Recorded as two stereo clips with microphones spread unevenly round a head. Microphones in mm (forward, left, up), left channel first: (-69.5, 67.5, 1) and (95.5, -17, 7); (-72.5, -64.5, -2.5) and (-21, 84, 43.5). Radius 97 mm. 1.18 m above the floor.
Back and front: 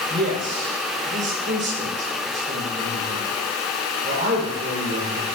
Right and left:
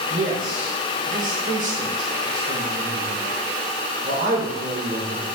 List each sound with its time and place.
0.1 s a man speaking: 20° left, 4 m